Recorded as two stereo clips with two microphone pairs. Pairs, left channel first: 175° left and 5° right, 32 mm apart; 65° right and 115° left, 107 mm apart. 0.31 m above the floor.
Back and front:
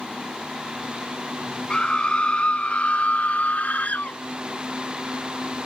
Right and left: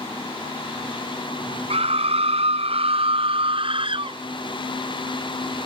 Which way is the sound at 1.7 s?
115° left.